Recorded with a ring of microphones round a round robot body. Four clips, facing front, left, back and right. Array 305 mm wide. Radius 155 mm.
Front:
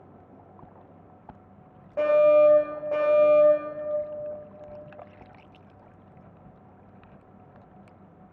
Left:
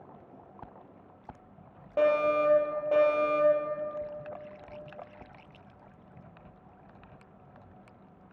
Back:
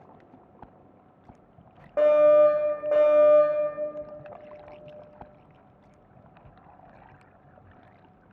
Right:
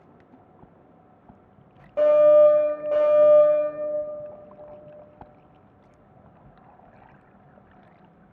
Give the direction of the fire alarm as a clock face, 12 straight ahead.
7 o'clock.